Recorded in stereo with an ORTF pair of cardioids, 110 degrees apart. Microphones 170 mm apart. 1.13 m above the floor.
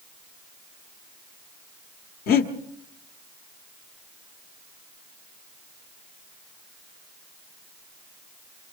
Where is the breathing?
65° left, 1.8 m.